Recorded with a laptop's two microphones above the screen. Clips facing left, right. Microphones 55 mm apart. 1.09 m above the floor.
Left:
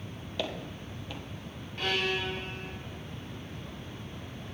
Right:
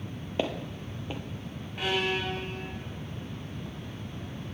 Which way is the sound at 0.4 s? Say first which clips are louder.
Right 4 dB; 30° right (ahead or behind).